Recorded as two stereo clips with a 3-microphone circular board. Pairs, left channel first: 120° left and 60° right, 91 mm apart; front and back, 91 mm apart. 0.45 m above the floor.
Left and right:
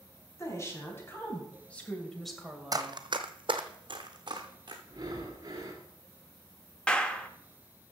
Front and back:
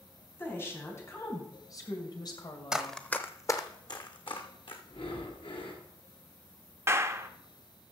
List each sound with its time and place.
0.4 s a woman speaking: 65° left, 3.5 m; by 3.0 s 10° left, 2 m
2.7 s running footsteps: 100° right, 0.9 m; by 4.8 s 20° right, 2.0 m
4.9 s breathing: 15° right, 2 m
6.9 s a clap: 175° right, 0.8 m